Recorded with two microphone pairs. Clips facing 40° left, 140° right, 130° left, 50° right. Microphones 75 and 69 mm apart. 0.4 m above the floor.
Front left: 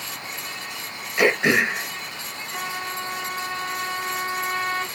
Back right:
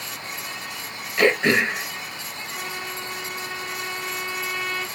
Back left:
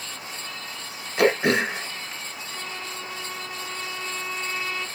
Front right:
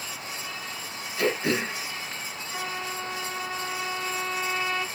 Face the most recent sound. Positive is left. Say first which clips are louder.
# front left 4 dB, front right 4 dB
turn(degrees=-5)